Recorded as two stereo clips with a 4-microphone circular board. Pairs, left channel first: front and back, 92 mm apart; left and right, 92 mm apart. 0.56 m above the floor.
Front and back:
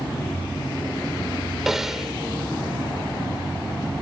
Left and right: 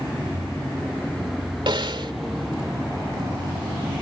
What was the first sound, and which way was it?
A snare drum, 95° right.